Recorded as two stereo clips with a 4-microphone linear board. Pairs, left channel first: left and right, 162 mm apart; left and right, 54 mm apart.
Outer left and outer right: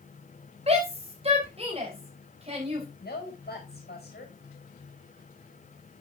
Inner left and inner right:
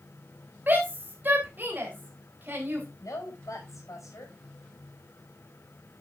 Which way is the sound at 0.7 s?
40° right (ahead or behind).